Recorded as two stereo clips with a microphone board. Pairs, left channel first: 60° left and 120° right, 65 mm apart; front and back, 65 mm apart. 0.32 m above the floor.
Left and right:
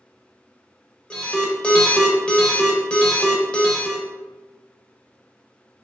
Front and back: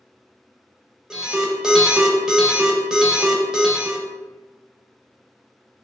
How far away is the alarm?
About 0.5 m.